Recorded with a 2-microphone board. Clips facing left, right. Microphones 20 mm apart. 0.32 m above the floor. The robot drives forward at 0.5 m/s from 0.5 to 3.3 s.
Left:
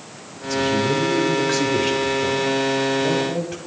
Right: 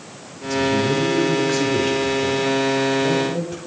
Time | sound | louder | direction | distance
0.4 | a man speaking | right 1 dB | 15° left (ahead or behind) | 1.3 m